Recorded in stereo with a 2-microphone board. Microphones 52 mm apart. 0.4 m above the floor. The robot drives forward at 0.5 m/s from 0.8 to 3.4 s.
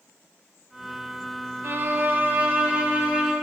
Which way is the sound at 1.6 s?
50° right (ahead or behind).